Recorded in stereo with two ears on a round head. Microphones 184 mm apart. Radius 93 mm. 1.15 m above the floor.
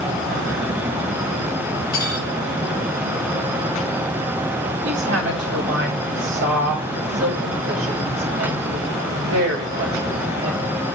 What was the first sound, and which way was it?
Cutlery clinking, 45° left (ahead or behind).